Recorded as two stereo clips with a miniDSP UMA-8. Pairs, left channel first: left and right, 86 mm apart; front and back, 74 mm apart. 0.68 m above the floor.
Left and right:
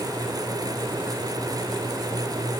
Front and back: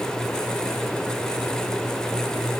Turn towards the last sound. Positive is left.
No sound to turn to.